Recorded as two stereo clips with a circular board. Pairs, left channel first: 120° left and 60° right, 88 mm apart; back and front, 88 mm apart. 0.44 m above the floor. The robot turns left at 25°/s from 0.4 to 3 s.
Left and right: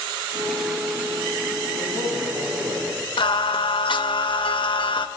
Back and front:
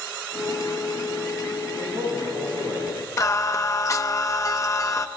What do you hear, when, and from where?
1.8 s a man speaking: 15° right, 5 m; by 2.9 s 45° right, 5 m
3.2 s singing: 130° left, 0.6 m